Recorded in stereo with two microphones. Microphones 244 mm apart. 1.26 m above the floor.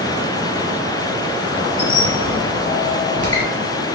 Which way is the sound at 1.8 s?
20° left (ahead or behind).